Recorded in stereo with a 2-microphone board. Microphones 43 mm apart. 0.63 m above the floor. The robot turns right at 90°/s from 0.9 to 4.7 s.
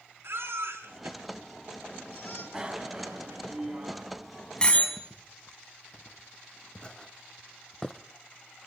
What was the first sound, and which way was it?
A baby crying, 65° right (ahead or behind).